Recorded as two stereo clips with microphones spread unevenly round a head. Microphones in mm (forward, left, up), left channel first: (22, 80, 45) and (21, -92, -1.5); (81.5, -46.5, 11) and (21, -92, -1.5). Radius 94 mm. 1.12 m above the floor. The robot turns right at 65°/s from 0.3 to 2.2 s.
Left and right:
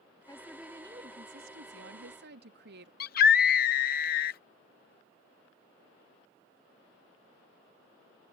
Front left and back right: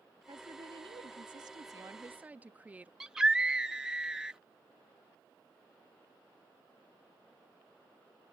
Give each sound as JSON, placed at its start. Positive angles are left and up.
{"t": 0.3, "sound": "a woman speaking", "azimuth_deg": 165}
{"t": 3.0, "sound": "a scream", "azimuth_deg": 135}